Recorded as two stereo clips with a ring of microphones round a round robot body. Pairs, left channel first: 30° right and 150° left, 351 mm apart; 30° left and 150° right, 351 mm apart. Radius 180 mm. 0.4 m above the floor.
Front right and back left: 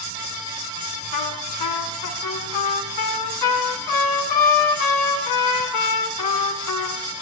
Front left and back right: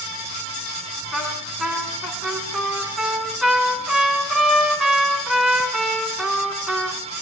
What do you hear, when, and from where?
1.1 s a trumpet: 60° right, 5 m